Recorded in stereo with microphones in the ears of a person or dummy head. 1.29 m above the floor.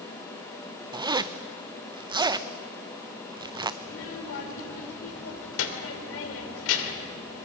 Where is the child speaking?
80° left, 3 m.